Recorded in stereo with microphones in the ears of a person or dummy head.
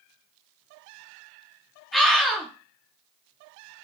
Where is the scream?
Centre (ahead or behind), 0.5 m.